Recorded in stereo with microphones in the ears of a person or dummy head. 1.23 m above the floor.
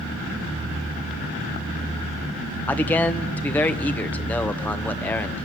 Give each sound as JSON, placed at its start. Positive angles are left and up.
{"t": 2.7, "sound": "a man speaking", "side_deg": 10, "distance_m": 1.2}